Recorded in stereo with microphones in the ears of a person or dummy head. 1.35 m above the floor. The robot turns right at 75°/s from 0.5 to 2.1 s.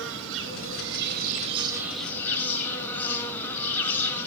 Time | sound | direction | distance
0.0 | an insect | 115° right | 3.5 m